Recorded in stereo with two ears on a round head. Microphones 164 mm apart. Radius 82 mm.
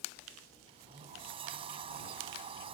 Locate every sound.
0.7 s a sliding door: 30° right (ahead or behind)